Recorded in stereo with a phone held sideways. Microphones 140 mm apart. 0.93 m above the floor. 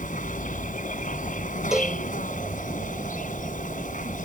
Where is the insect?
75° left (ahead or behind).